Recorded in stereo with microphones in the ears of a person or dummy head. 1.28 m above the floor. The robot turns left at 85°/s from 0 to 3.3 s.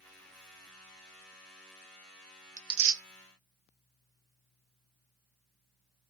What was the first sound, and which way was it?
Tearing paper, 15° right (ahead or behind).